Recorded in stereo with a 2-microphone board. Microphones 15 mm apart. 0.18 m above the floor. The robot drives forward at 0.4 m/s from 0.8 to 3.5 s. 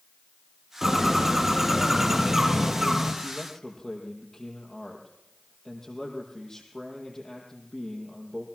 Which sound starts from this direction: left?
A man speaking, at 3.2 s.